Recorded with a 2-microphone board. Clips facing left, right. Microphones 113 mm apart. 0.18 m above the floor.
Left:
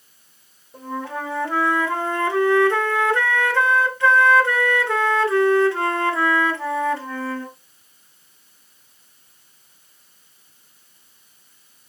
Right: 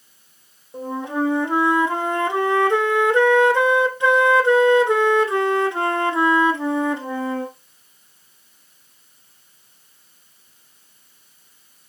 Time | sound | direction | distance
0.7 | a flute | 20° right (ahead or behind) | 0.5 m